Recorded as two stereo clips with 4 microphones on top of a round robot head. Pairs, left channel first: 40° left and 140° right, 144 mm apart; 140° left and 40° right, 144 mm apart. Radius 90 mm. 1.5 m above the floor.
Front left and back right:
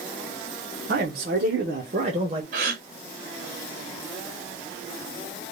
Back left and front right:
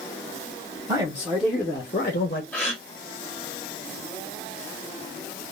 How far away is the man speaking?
About 0.8 m.